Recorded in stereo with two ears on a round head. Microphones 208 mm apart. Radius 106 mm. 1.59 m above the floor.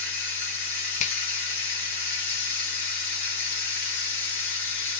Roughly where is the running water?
Left.